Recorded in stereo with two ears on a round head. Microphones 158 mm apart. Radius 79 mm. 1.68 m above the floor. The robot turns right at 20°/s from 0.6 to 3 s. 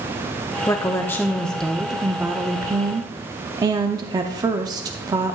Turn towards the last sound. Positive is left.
turn(degrees=-155)